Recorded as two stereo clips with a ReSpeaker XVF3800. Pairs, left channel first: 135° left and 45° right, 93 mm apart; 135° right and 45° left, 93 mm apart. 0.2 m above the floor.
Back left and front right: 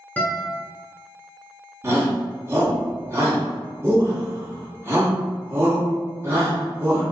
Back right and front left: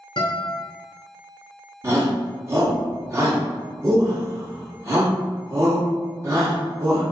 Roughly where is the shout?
Ahead.